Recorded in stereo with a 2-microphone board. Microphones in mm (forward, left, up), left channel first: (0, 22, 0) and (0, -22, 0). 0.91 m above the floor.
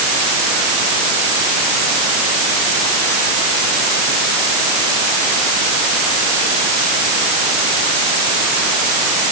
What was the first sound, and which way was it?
Only background noise.